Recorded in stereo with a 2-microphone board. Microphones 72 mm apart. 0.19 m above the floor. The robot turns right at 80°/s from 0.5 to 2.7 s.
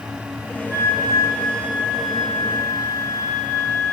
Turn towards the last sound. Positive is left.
turn(degrees=50)